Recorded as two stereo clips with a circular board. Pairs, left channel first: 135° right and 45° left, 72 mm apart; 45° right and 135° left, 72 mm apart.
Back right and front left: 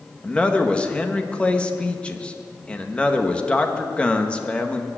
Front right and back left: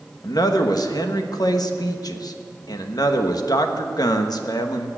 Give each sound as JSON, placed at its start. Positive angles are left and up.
{"t": 0.2, "sound": "a man speaking", "azimuth_deg": -60, "distance_m": 1.2}